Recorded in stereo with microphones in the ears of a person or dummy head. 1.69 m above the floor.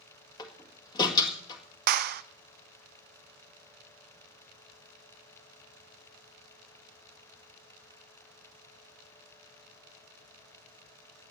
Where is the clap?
50° right (ahead or behind), 0.6 m.